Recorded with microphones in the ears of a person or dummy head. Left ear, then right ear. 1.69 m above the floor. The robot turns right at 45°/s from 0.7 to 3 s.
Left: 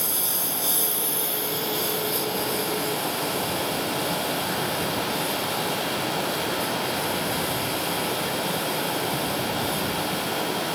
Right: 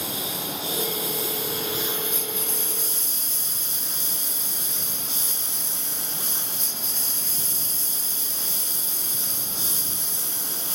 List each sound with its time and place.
0.0 s a lawn mower: 135° left; by 10.8 s 125° right